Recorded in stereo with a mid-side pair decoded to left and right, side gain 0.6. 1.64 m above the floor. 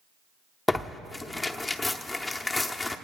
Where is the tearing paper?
10° left, 0.8 m.